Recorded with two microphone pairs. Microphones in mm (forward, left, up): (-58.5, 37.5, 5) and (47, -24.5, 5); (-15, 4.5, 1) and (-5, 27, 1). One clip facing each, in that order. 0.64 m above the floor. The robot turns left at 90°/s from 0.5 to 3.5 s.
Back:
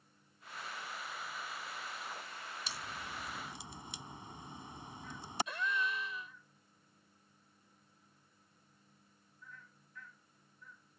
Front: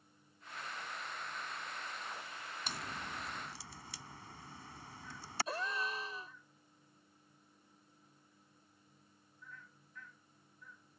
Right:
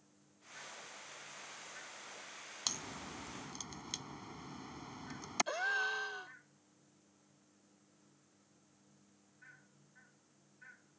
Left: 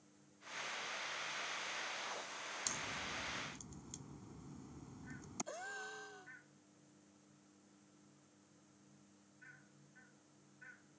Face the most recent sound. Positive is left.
turn(degrees=-80)